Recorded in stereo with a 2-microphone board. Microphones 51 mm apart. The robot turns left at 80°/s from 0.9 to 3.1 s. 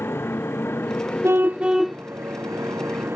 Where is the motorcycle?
50° left; by 3.2 s 130° right.